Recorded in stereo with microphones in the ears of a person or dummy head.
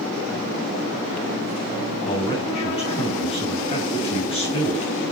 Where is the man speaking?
30° left (ahead or behind), 8.5 m.